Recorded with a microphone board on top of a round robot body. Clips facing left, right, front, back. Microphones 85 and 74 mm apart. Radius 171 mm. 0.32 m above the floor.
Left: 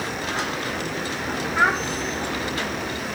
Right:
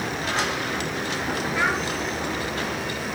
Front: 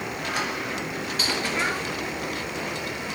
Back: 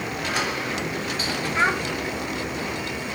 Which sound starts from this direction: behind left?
A child speaking, at 1.6 s.